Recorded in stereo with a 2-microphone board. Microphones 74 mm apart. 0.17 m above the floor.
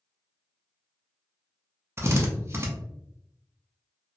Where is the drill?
35° right (ahead or behind), 0.6 m.